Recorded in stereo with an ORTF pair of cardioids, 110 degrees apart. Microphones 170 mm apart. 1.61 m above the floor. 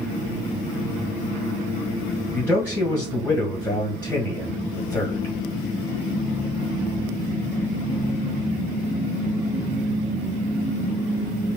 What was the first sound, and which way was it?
A man speaking, 10° left.